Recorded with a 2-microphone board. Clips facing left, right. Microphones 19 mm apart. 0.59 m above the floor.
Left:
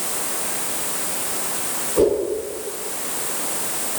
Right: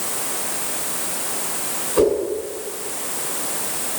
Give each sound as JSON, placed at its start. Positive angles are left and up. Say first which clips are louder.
{"t": 2.0, "sound": "a whoosh", "louder": "even", "side_deg": -75, "distance_m": 5.0}